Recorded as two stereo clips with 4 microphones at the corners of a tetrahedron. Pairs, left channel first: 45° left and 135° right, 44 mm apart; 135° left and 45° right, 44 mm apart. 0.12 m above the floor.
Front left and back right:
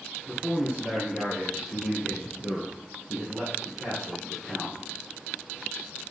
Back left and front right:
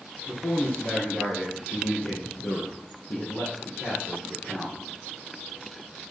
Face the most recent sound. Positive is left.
turn(degrees=150)